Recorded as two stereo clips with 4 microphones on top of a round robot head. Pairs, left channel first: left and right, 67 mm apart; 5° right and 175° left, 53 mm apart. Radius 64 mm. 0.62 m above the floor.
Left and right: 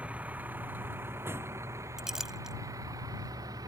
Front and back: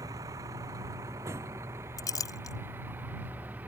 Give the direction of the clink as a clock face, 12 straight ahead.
12 o'clock.